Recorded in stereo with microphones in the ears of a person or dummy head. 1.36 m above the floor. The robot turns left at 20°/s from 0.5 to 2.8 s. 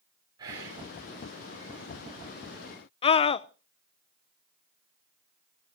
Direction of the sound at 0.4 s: 30° right (ahead or behind).